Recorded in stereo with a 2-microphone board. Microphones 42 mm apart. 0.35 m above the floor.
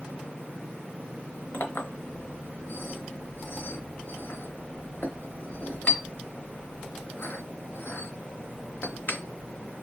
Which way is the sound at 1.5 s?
55° left (ahead or behind).